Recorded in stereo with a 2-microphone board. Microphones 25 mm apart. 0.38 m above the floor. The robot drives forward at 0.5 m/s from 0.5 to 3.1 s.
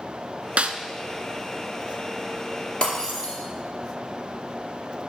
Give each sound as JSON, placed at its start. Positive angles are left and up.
{"t": 0.6, "sound": "a snare drum", "side_deg": -75, "distance_m": 0.6}
{"t": 2.8, "sound": "breaking glass", "side_deg": 35, "distance_m": 3.5}